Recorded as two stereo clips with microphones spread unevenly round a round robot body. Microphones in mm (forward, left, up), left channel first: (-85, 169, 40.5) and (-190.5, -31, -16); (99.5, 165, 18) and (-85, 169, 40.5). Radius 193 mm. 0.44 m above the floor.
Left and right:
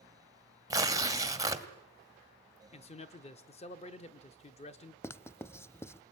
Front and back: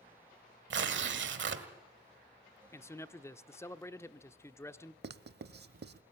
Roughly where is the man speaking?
Ahead.